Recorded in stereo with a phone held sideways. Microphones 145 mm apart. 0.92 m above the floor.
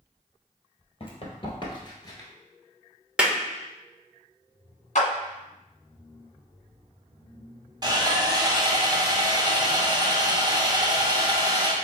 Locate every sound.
1.0 s running footsteps: 40° left (ahead or behind), 1.3 m; by 2.3 s 25° left (ahead or behind), 1.0 m
3.2 s a clap: 5° right (ahead or behind), 0.7 m
5.0 s a clap: 60° left (ahead or behind), 1.3 m
7.8 s sawing: 30° right (ahead or behind), 0.8 m